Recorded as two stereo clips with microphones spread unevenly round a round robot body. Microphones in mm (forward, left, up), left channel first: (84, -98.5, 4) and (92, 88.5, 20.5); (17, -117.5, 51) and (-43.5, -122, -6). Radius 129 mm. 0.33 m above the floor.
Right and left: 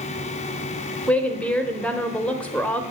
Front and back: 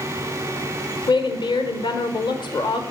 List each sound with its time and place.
1.1 s a woman speaking: 25° right, 1.0 m